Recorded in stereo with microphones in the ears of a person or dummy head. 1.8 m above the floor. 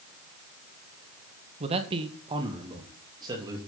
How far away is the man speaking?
About 1.7 m.